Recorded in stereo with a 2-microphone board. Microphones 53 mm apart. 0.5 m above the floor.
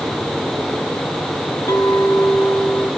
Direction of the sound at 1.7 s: 80° left.